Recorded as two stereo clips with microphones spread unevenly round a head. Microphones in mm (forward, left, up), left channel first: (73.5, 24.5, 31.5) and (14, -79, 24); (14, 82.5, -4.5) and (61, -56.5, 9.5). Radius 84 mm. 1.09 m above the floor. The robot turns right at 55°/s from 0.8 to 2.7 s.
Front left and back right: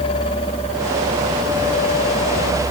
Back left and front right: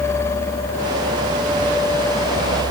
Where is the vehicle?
160° left; by 2.7 s 85° right.